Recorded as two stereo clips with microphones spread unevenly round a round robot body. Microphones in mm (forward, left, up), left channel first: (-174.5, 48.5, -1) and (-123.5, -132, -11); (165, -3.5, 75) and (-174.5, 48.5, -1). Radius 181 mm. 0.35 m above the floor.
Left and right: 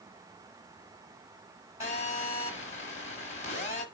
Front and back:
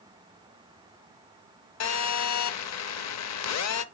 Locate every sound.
1.8 s a phone buzzing: 40° left, 0.8 m